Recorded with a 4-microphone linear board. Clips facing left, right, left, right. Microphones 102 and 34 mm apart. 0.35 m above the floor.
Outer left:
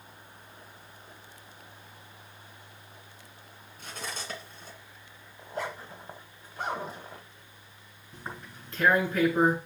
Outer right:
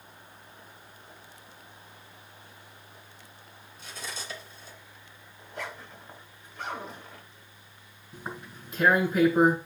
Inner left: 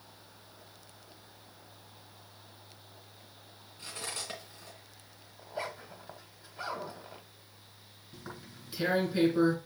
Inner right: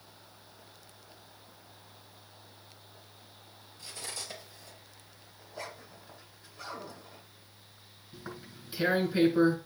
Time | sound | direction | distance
3.8 | cutlery clinking | 55° left (ahead or behind) | 2.5 m
5.4 | a zipper | 40° left (ahead or behind) | 1.6 m
8.1 | tearing paper | 10° right (ahead or behind) | 2.5 m